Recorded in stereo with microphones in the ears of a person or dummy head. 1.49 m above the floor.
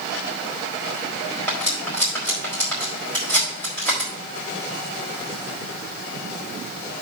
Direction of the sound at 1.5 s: 5° left (ahead or behind).